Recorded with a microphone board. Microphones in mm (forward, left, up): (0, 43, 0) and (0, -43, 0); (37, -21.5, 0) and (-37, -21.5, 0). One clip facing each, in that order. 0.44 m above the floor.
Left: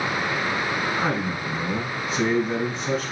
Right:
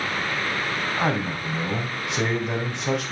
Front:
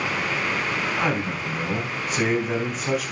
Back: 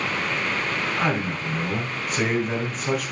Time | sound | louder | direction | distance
1.0 | a man speaking | even, even | 90° right | 3 m